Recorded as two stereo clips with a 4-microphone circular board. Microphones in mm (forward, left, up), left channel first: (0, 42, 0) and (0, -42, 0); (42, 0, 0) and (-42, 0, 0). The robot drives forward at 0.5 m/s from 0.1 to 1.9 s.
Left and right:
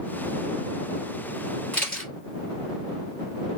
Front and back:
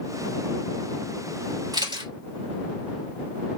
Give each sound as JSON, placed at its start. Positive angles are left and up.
{"t": 1.7, "sound": "a camera shutter", "azimuth_deg": 165, "distance_m": 2.0}